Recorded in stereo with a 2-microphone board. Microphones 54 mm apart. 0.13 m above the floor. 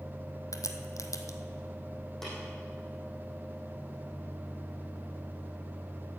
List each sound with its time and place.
0.5 s a crack: 75° left (ahead or behind), 1.0 m
2.2 s tapping: 5° left (ahead or behind), 5.5 m